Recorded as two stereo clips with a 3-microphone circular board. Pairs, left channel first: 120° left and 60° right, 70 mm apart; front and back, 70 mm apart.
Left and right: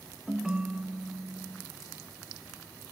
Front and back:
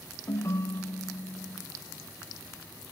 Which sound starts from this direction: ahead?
A ringtone, at 0.3 s.